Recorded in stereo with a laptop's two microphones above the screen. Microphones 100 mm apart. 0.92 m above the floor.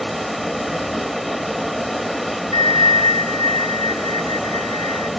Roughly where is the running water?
Centre.